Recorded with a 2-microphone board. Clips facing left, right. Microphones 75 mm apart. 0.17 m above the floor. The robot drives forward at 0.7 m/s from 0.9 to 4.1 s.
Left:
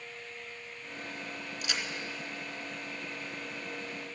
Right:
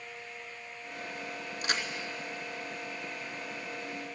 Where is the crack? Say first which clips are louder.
Right 4 dB; 50° right (ahead or behind), 0.8 m; by 1.8 s 55° right (ahead or behind), 0.8 m.